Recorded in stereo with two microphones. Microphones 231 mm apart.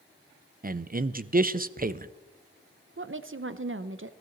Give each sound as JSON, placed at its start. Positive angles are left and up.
{"t": 0.6, "sound": "a man speaking", "side_deg": -35, "distance_m": 0.5}
{"t": 3.0, "sound": "a woman speaking", "side_deg": -55, "distance_m": 0.7}